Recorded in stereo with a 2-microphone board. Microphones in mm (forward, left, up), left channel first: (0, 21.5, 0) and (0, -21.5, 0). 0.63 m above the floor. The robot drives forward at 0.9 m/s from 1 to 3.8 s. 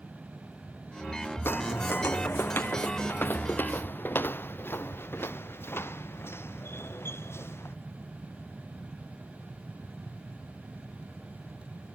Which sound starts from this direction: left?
Footsteps, at 1.4 s.